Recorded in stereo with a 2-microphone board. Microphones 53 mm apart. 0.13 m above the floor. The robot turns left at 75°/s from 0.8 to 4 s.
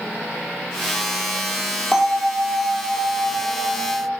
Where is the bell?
Straight behind, 0.7 m; by 4.1 s 25° left, 0.7 m.